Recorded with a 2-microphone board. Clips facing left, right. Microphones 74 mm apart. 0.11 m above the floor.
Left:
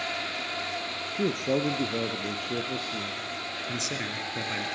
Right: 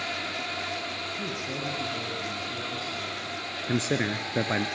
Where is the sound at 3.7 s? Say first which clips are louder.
Right 9 dB; 40° right (ahead or behind), 1.5 m.